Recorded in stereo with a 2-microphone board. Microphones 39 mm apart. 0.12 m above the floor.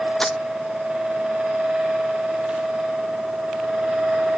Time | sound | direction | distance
0.2 | crumpling | 15° left (ahead or behind) | ?